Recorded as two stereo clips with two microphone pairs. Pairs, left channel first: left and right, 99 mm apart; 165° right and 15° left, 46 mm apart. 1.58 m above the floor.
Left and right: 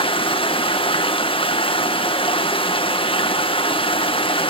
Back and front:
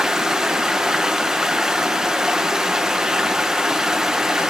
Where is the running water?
95° left, 1.0 m.